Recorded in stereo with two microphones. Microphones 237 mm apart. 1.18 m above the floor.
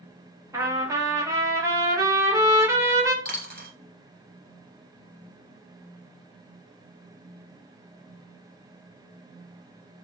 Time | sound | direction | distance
0.5 | a trumpet | 15° right (ahead or behind) | 1.3 m
3.2 | a dropped coin | 40° right (ahead or behind) | 1.6 m